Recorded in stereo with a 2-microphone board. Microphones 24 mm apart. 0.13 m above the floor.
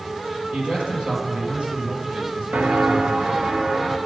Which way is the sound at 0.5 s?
60° right (ahead or behind).